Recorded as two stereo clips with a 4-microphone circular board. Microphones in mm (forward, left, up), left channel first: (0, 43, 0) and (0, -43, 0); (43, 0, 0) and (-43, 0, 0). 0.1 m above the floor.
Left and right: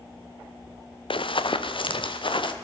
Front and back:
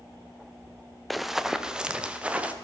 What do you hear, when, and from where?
1.1 s running footsteps: 90° left, 0.8 m; by 2.5 s 105° left, 1.5 m